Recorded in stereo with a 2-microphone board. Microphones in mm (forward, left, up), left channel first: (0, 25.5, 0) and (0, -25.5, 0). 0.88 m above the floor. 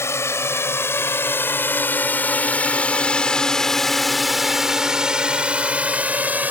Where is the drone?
60° left (ahead or behind); by 6.5 s 30° right (ahead or behind).